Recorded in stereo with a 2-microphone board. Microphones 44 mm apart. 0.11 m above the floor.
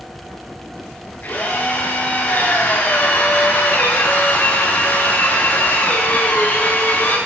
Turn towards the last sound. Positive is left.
turn(degrees=55)  # may be behind; listen again after turning